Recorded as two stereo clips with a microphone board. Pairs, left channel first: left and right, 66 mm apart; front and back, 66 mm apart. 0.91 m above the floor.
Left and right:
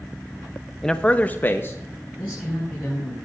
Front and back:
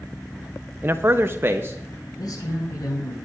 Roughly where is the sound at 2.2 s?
Ahead.